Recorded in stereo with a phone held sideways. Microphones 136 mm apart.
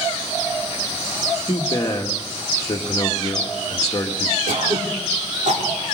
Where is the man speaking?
25° left (ahead or behind), 1.9 m.